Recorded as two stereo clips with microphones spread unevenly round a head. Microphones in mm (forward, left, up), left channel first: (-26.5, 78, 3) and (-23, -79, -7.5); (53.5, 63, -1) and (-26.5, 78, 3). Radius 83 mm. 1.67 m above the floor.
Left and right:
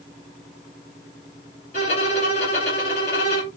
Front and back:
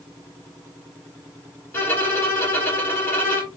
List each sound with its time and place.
1.7 s a violin: 45° left, 2.5 m